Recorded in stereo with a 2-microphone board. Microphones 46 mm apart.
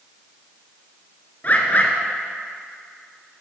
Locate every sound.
1.4 s a bird: 35° left (ahead or behind), 1.6 m